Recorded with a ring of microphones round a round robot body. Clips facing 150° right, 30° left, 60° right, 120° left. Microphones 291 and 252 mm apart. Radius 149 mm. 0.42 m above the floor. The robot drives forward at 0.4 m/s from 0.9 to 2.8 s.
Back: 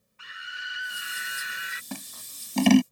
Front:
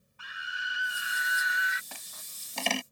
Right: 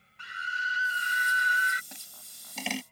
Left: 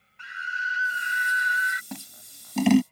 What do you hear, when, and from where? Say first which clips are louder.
0.2 s a scream: front 2 dB, left 2 dB; 95° right; by 1.8 s 110° right
1.9 s scissors: back 15 dB, left 15 dB; 165° left; by 2.8 s 170° left